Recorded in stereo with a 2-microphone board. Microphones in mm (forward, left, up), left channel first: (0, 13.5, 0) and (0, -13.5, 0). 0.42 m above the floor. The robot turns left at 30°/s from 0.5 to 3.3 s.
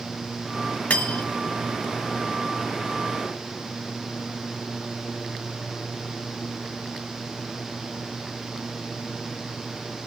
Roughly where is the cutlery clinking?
Left.